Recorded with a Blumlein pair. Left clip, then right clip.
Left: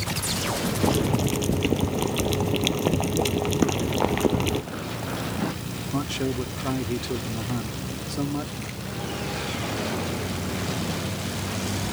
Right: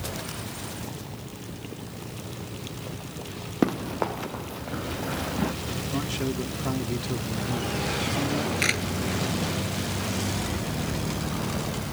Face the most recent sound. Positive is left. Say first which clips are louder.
# right 12 dB
turn(degrees=-35)